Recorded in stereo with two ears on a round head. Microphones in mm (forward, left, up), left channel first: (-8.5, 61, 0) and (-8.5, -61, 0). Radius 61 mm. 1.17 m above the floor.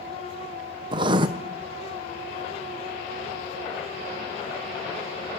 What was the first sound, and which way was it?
Writing, 35° right (ahead or behind).